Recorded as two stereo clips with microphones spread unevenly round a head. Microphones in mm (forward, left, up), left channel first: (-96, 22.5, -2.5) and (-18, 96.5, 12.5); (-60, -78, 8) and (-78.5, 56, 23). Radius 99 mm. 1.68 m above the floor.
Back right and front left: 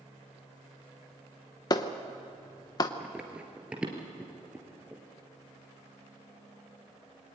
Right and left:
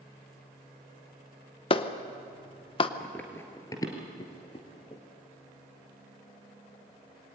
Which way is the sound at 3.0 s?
5° left.